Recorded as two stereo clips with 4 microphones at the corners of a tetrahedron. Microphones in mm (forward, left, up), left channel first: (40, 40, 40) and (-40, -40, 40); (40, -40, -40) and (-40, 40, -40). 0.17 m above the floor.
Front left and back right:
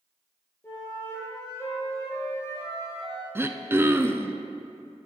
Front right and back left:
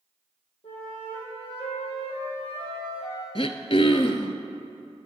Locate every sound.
0.6 s a flute: 20° right, 4 m
3.4 s throat clearing: 65° right, 0.6 m